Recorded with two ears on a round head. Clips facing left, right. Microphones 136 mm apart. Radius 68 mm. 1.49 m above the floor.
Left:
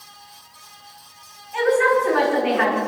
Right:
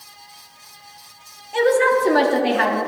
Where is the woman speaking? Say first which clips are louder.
Right 1 dB; 40° right (ahead or behind), 3.5 m.